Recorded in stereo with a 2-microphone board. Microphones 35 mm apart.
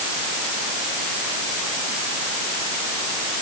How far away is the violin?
No violin in this recording.